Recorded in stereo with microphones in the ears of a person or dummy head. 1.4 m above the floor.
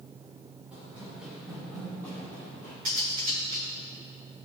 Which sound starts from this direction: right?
Cutlery clinking, at 2.9 s.